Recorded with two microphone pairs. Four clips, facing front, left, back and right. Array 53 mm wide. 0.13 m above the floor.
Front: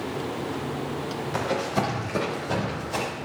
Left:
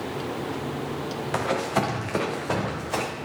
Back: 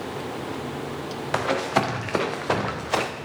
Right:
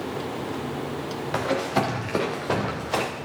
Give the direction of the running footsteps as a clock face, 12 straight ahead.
6 o'clock.